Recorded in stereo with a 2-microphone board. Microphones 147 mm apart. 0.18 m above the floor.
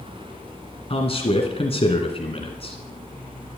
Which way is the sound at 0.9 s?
40° left (ahead or behind).